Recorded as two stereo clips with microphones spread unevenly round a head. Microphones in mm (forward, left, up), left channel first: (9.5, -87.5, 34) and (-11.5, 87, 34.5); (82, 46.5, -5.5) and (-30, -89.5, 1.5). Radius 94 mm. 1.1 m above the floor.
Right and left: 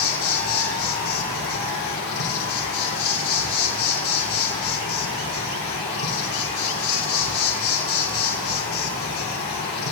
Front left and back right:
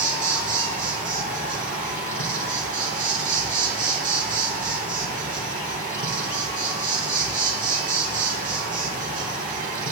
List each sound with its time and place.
0.0 s an insect: 90° right, 3.5 m